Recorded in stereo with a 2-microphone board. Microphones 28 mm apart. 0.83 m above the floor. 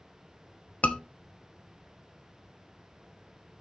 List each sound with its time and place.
0.8 s a scream: 65° left (ahead or behind), 1.5 m